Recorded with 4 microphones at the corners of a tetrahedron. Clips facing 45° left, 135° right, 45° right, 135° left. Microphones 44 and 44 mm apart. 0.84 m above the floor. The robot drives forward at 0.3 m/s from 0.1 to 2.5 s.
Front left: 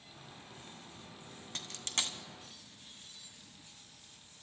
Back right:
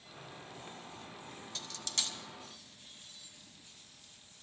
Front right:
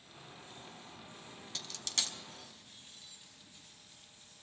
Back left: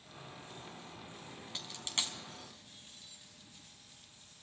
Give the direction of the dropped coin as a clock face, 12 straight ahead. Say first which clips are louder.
Front left 2 dB, back left 1 dB; 10 o'clock.